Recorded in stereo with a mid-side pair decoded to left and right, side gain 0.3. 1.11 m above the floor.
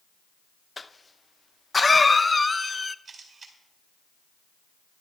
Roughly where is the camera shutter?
Ahead right.